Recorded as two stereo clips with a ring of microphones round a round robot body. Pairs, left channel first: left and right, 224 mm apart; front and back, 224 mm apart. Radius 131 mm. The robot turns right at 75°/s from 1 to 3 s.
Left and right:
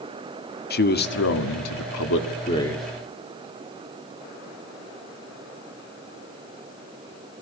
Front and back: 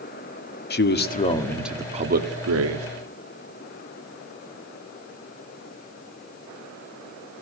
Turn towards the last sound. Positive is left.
turn(degrees=-165)